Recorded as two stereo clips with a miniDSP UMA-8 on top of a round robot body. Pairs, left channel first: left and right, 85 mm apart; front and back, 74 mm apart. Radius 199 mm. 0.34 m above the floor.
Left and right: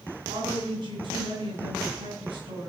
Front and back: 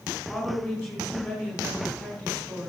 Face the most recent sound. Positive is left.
turn(degrees=-90)